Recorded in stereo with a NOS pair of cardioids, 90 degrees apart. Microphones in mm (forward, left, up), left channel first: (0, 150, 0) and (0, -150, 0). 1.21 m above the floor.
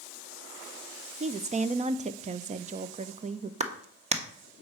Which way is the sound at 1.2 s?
25° right.